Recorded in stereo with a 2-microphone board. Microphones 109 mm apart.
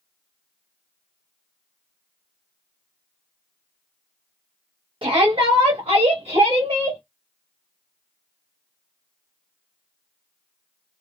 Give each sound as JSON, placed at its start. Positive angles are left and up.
{"t": 5.0, "sound": "a shout", "side_deg": -55, "distance_m": 1.5}